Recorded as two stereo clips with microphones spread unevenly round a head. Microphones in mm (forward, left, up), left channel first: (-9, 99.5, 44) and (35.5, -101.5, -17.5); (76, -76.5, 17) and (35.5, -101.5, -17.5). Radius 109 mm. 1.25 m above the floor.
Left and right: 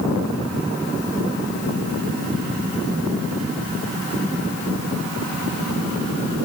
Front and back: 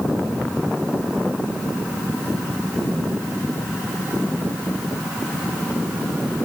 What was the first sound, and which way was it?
Only background noise.